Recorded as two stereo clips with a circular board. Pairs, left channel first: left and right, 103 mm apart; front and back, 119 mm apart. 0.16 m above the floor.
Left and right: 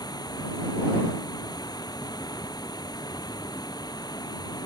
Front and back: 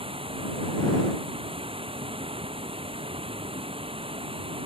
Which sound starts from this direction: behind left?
Running water, at 0.0 s.